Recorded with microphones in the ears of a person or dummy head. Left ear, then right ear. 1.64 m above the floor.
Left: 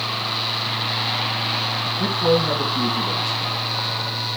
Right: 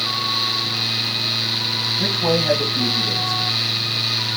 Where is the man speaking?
20° right (ahead or behind), 1.6 m.